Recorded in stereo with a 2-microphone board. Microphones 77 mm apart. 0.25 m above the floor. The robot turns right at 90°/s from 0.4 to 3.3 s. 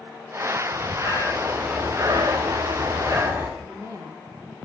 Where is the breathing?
100° left, 9.5 m; by 3.5 s 30° right, 9.5 m.